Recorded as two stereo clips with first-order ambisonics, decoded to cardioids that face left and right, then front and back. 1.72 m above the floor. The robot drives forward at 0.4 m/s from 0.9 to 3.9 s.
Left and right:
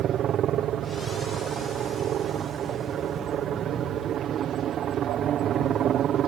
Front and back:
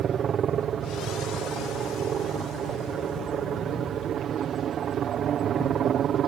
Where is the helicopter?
130° right; by 6.3 s 135° right.